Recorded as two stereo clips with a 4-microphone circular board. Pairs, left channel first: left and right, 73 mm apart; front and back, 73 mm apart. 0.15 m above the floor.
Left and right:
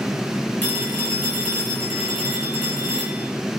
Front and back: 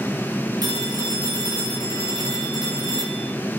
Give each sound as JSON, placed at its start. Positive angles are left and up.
{"t": 0.6, "sound": "a phone ringing", "azimuth_deg": 155, "distance_m": 9.5}